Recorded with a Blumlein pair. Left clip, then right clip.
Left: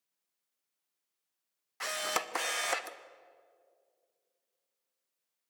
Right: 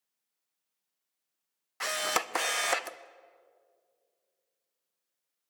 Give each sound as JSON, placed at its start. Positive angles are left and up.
{"t": 1.8, "sound": "a camera shutter", "azimuth_deg": -10, "distance_m": 0.6}